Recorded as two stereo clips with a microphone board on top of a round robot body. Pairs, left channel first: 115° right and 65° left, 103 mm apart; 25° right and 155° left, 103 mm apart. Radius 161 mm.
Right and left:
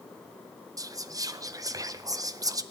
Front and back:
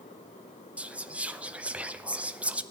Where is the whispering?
90° left, 0.6 m.